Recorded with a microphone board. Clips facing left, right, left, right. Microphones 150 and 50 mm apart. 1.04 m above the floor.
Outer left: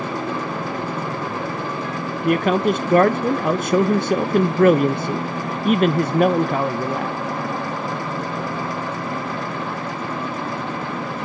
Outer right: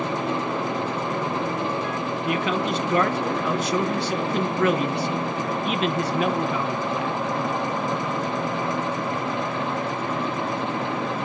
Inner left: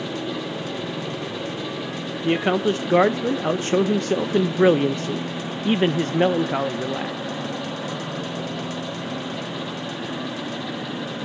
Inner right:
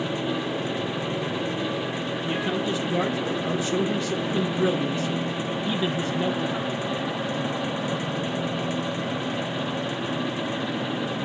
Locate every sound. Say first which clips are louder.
2.2 s a man speaking: outer left 9 dB, inner left 8 dB; 50° left (ahead or behind), 0.5 m